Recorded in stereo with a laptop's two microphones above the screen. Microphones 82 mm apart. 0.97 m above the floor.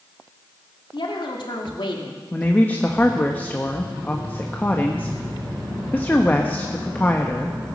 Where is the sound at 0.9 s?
75° left (ahead or behind), 2.5 m.